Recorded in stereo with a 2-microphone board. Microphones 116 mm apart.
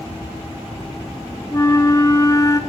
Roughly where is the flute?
Left.